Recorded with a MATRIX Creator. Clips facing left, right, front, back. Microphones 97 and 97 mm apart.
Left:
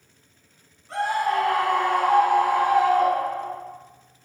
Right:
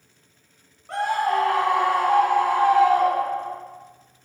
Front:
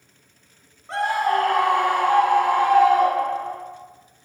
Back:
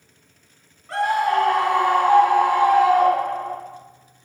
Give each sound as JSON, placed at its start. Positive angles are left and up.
{"t": 0.9, "sound": "a scream", "azimuth_deg": -65, "distance_m": 0.9}